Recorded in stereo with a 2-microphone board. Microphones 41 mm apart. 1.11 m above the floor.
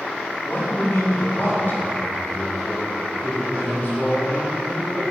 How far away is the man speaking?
About 3 m.